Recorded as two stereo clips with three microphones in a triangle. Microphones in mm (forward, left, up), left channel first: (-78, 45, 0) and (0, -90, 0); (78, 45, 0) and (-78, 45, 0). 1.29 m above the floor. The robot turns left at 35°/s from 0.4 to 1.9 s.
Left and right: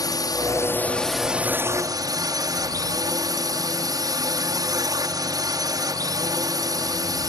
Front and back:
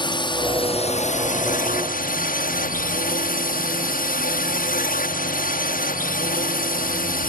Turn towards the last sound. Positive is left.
turn(degrees=5)